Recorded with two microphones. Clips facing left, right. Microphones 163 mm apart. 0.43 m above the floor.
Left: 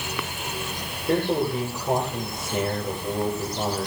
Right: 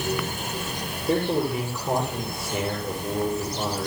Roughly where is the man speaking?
Centre.